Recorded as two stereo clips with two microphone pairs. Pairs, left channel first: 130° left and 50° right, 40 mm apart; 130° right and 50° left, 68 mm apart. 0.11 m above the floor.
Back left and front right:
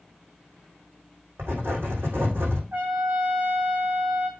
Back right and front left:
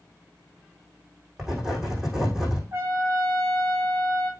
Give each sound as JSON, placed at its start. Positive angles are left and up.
{"t": 1.4, "sound": "writing", "azimuth_deg": -30, "distance_m": 5.5}
{"t": 2.7, "sound": "a trumpet", "azimuth_deg": 0, "distance_m": 4.5}